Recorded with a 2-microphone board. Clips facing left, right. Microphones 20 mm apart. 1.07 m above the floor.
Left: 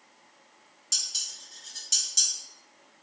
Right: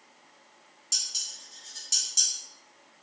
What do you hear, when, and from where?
0.9 s dishes clattering: 5° left (ahead or behind), 1.2 m